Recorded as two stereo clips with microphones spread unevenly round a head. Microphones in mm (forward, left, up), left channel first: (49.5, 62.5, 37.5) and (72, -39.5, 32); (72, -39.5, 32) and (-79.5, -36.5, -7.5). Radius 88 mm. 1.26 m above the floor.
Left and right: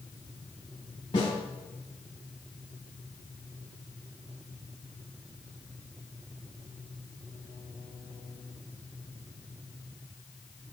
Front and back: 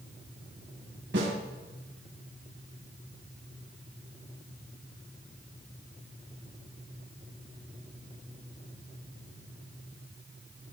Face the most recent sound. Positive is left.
turn(degrees=165)